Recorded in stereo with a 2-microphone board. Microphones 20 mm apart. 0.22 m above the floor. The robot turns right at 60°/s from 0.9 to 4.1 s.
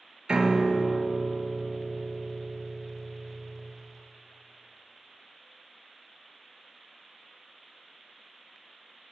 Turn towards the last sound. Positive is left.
turn(degrees=65)